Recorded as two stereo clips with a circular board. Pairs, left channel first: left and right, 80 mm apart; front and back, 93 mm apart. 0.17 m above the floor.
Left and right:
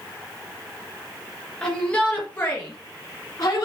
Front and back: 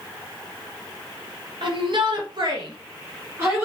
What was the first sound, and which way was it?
A shout, 165° left.